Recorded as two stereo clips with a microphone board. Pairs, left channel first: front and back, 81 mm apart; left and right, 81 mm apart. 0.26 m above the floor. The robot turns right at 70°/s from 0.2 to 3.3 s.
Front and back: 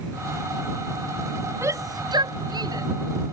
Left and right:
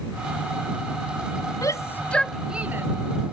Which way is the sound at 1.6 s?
125° left.